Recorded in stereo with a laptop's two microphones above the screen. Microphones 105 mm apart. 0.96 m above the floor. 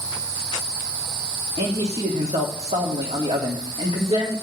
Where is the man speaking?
75° right (ahead or behind), 1.6 m.